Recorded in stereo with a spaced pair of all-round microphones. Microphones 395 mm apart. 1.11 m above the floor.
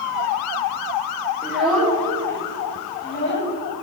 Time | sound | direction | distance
1.4 | a child speaking | 5° right (ahead or behind) | 2.5 m